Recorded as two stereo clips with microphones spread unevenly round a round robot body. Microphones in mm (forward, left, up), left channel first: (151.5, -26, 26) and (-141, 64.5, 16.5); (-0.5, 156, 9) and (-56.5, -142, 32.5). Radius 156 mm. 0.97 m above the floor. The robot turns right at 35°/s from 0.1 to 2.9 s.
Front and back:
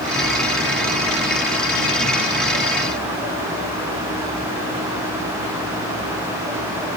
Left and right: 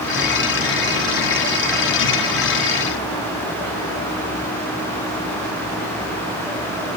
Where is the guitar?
No guitar in this recording.